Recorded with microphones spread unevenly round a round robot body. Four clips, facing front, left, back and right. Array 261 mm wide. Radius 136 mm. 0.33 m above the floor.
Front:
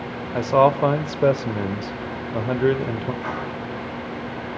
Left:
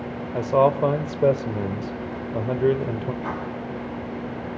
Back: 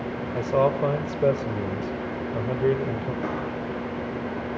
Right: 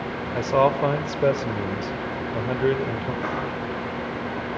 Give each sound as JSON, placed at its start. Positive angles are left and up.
{"t": 0.3, "sound": "a man speaking", "azimuth_deg": 130, "distance_m": 0.9}
{"t": 3.2, "sound": "writing", "azimuth_deg": -170, "distance_m": 9.0}